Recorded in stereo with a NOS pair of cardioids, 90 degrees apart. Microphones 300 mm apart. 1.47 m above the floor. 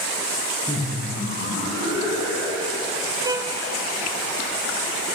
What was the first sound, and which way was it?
Laughter, 5° left.